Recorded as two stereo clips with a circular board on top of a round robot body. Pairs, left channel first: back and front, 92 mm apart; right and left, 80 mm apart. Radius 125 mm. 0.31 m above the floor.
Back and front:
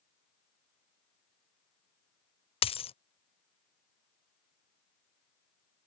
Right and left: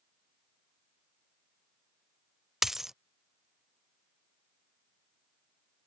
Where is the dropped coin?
175° left.